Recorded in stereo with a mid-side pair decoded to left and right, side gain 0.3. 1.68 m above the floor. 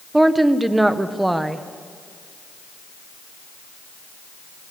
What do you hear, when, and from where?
0.1 s a woman speaking: 20° right, 1.4 m